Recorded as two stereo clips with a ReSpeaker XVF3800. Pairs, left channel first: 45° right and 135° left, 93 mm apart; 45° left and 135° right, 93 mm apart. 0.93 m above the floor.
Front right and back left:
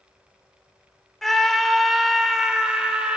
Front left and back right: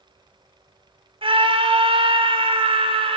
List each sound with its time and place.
1.2 s a scream: 130° right, 3.5 m; by 3.2 s 145° right, 4 m